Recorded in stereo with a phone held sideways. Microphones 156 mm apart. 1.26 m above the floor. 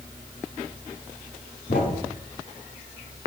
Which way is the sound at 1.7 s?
70° left (ahead or behind).